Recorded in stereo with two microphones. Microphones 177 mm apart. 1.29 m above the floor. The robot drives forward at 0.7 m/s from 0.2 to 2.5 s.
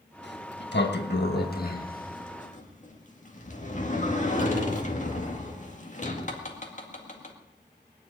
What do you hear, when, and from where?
0.2 s a sliding door: 85° left, 1.4 m; by 7.3 s 45° left (ahead or behind), 2.0 m